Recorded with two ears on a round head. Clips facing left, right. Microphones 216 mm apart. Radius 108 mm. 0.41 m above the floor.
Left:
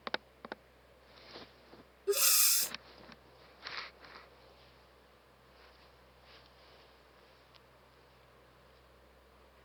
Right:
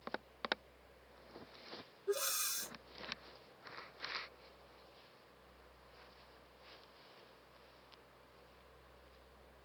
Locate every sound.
2.1 s breathing: 40° left (ahead or behind)